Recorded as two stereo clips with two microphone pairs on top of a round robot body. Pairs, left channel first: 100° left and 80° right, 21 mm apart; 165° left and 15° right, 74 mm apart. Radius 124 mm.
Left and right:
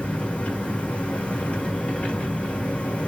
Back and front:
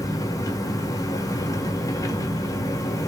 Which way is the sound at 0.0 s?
115° left.